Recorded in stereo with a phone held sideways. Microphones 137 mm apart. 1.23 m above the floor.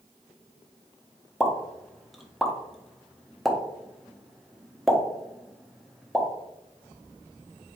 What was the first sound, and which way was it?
A pop, centre (ahead or behind).